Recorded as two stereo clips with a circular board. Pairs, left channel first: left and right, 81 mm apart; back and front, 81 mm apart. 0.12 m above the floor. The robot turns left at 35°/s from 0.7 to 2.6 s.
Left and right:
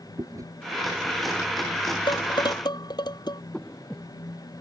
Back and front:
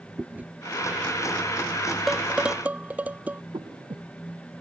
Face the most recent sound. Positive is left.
turn(degrees=10)